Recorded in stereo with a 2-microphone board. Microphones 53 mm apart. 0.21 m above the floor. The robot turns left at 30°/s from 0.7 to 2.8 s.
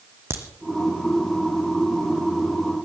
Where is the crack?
50° right (ahead or behind), 2 m.